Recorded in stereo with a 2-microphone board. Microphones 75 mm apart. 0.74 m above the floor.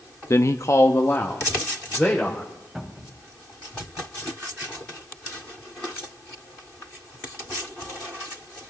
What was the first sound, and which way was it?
A man speaking, 40° left (ahead or behind).